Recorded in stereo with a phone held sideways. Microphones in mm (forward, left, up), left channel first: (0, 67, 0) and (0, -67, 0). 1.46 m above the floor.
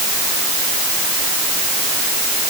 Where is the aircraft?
No aircraft in this recording.